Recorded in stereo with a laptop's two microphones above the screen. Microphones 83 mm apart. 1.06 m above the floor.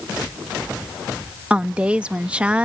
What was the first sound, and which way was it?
A woman speaking, 15° right (ahead or behind).